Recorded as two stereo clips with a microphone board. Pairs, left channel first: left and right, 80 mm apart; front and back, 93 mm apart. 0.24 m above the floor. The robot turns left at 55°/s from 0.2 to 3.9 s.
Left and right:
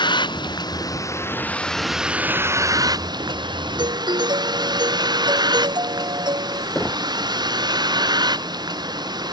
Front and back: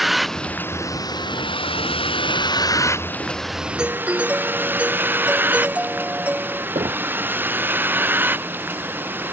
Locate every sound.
0.0 s a vehicle: 90° left; by 9.3 s 110° right
3.8 s a doorbell: 95° right; by 6.7 s 105° right
6.8 s knocking: 170° left